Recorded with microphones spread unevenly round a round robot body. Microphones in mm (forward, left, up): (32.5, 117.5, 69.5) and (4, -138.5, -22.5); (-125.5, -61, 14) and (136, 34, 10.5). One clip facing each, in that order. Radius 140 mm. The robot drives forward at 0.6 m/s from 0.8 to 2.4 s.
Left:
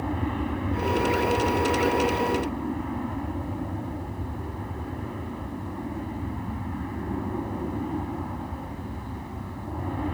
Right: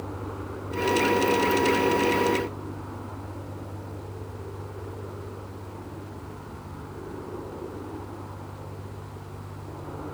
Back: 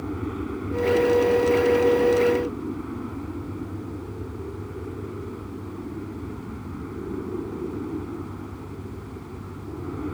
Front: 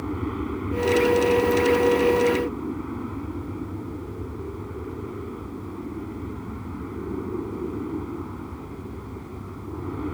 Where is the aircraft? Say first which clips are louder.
Left 7 dB, front 1 dB; 105° left.